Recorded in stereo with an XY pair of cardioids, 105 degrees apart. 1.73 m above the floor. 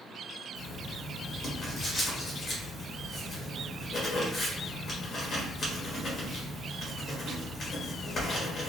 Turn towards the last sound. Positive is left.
turn(degrees=45)